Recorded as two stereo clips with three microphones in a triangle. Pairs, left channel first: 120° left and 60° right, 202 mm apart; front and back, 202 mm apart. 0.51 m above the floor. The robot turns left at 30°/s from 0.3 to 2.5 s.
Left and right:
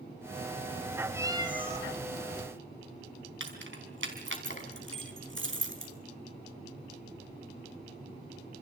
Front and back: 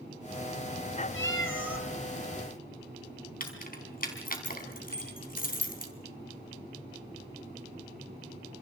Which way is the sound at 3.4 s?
45° right.